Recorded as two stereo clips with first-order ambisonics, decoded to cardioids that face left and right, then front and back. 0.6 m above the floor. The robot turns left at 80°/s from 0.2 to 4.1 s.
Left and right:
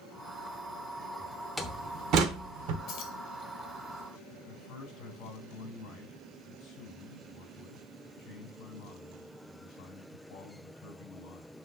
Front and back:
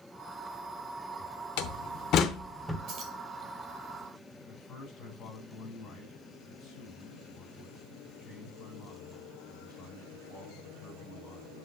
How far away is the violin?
No violin in this recording.